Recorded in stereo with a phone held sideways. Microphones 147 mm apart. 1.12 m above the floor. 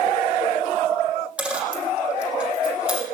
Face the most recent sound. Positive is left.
turn(degrees=-5)  # may be behind; listen again after turning